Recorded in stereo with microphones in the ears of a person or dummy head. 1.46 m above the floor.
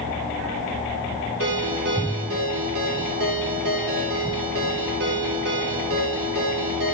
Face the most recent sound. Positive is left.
turn(degrees=-70)  # may be behind; listen again after turning